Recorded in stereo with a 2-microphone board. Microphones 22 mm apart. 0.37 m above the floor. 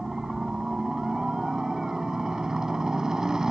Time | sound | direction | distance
0.0 | a helicopter | 30° right (ahead or behind) | ?